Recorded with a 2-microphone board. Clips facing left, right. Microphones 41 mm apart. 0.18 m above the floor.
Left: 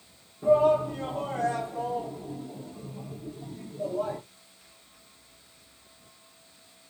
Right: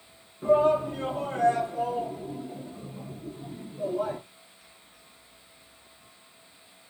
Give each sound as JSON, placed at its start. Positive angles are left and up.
{"t": 0.4, "sound": "a shout", "side_deg": -35, "distance_m": 3.0}